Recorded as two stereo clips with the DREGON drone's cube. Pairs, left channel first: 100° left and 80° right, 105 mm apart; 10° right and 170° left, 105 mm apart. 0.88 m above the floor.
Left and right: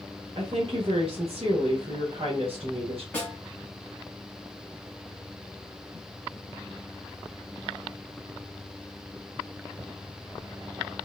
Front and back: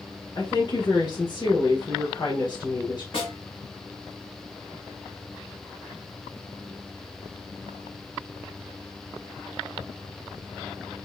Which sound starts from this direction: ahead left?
A snare drum, at 3.1 s.